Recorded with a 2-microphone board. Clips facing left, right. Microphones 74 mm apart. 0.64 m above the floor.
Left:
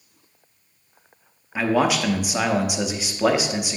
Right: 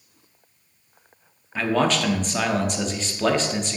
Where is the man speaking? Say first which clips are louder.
Left 1 dB; 10° left (ahead or behind), 0.8 m.